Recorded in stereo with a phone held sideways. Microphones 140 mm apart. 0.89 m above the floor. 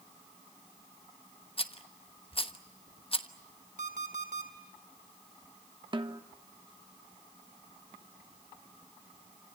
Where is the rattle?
40° left (ahead or behind), 1.1 m.